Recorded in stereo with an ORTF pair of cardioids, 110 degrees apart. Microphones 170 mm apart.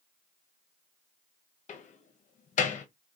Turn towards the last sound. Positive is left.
turn(degrees=45)